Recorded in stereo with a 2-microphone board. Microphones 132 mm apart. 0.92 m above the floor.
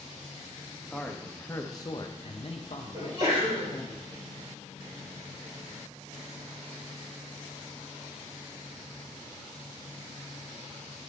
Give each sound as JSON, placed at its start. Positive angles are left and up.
{"t": 0.9, "sound": "a man speaking", "side_deg": 5, "distance_m": 1.1}
{"t": 2.9, "sound": "a sneeze", "side_deg": -45, "distance_m": 4.0}